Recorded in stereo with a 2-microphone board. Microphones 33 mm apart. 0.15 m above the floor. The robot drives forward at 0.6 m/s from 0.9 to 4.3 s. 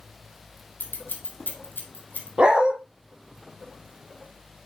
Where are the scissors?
80° left, 1.8 m; by 2.3 s 60° left (ahead or behind), 2 m.